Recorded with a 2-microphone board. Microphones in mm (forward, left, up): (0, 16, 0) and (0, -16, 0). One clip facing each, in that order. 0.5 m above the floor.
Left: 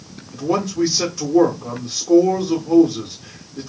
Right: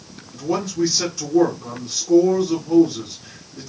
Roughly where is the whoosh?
I don't hear a whoosh.